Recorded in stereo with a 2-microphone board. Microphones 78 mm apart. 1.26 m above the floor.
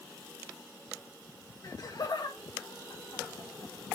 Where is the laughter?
45° left (ahead or behind), 1.6 m; by 3.7 s 80° left, 2.5 m.